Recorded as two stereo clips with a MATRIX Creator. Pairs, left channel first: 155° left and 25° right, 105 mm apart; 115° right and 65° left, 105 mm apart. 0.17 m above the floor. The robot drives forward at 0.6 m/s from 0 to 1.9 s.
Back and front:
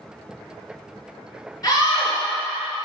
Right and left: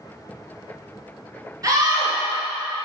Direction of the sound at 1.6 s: 115° left.